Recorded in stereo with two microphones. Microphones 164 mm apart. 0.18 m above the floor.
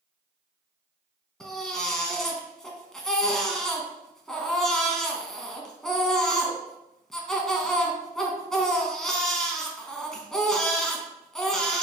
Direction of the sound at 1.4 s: 5° left (ahead or behind).